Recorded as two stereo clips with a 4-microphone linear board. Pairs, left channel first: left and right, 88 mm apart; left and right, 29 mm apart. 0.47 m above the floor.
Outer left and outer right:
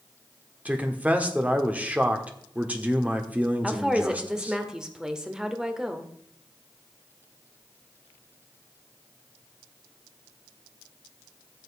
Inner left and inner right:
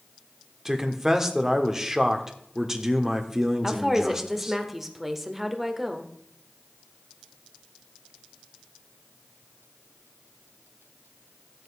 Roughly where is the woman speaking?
Centre.